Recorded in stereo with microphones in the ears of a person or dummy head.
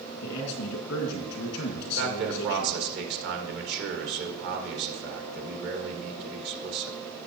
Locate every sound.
0.2 s a man speaking: 60° left (ahead or behind), 1.8 m
2.0 s a man speaking: 55° right (ahead or behind), 1.6 m